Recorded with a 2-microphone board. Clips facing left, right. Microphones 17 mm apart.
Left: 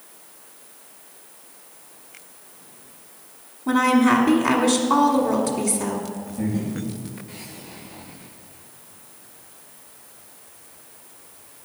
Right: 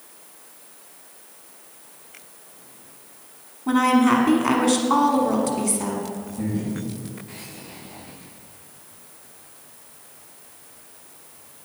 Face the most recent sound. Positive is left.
turn(degrees=20)  # may be behind; listen again after turning